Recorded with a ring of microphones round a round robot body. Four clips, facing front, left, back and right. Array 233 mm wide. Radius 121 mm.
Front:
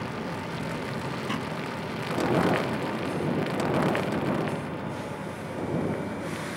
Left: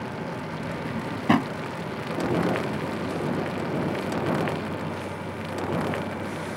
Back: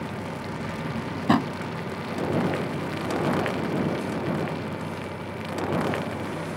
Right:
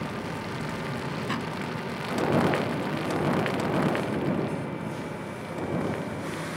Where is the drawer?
130° left.